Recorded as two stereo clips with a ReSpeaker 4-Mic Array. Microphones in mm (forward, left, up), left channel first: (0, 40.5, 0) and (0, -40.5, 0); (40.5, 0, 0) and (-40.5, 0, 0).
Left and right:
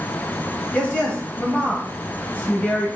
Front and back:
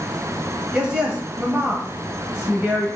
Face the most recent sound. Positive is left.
turn(degrees=120)